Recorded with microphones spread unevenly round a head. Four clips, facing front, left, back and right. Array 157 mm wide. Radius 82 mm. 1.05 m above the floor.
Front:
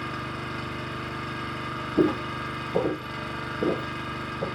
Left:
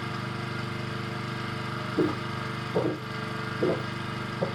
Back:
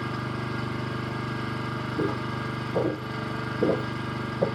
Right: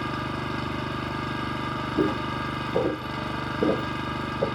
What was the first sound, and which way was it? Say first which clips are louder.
An engine running: right 5 dB, back 2 dB; 115° right.